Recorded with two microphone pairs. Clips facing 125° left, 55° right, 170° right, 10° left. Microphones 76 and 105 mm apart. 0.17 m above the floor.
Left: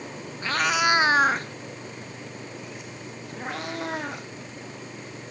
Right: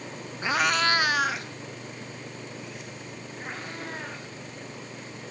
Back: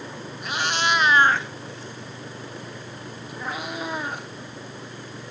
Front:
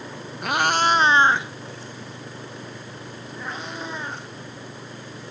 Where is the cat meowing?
10° left, 0.6 m; by 4.3 s 110° left, 2.5 m.